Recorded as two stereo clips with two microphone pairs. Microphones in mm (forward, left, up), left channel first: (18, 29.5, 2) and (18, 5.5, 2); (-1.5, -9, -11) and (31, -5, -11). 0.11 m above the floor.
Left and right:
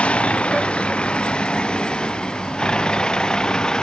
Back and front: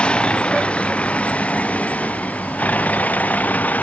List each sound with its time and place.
0.0 s a vehicle: 130° left; by 3.8 s 150° left